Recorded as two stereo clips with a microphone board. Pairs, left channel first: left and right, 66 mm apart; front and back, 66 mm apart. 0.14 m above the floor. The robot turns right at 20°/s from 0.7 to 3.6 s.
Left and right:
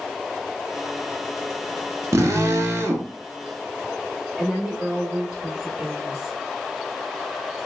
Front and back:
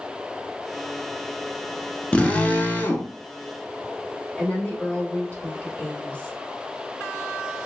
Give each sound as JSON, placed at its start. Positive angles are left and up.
{"t": 2.1, "sound": "a drill", "azimuth_deg": -70, "distance_m": 0.6}
{"t": 4.4, "sound": "a woman speaking", "azimuth_deg": -30, "distance_m": 1.3}